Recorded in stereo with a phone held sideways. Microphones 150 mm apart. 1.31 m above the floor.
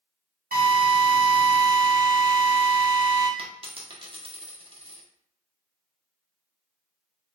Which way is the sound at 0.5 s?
85° right.